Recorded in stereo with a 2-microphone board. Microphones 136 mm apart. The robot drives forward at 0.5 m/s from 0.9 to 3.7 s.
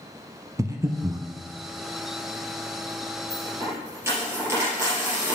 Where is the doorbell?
I don't hear a doorbell.